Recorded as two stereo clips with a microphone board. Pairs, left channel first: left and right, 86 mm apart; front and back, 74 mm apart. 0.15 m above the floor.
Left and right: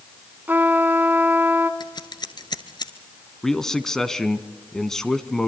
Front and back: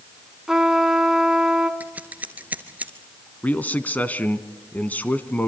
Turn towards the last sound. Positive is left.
turn(degrees=15)